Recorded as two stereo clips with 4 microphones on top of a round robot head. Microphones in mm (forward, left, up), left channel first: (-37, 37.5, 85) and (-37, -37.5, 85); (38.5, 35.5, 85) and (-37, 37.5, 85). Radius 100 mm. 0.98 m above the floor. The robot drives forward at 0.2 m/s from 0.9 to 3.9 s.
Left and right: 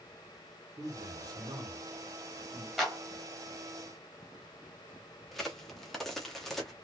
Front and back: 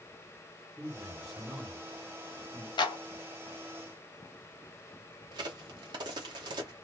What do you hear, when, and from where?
0.8 s a man speaking: 90° right, 1.3 m; by 2.7 s 110° right, 1.4 m
2.8 s a clap: 5° right, 0.7 m
5.3 s a crack: 175° left, 0.7 m